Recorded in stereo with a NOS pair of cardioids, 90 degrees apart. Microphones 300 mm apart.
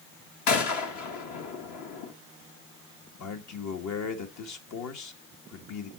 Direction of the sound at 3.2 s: 70° left.